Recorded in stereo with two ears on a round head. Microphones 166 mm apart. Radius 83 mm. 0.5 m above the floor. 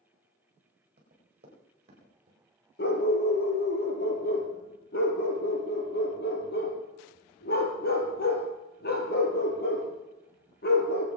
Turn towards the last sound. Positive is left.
turn(degrees=55)  # may be behind; listen again after turning